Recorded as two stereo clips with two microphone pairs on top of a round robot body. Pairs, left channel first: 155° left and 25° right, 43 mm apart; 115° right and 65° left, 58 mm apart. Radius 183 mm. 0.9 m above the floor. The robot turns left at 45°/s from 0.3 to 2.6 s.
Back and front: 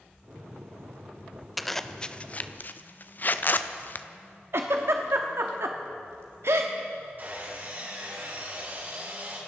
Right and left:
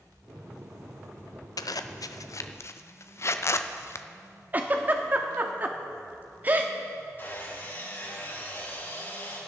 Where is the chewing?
No chewing in this recording.